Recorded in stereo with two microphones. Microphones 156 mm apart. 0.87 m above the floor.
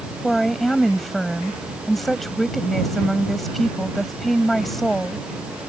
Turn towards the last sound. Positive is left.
turn(degrees=0)  # may be behind; listen again after turning